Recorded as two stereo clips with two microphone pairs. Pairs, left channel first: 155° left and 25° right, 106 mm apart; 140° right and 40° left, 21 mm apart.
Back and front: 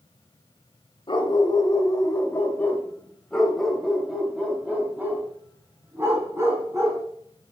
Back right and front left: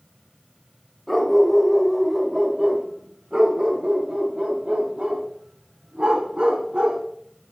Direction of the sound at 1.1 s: 130° left.